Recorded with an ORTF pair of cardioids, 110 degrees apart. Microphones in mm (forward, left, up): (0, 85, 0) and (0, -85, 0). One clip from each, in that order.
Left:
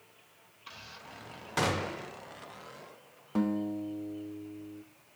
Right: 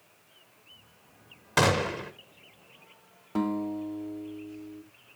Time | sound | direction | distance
1.6 | a gunshot | 35° right | 1.0 m
3.4 | a guitar | 5° right | 1.1 m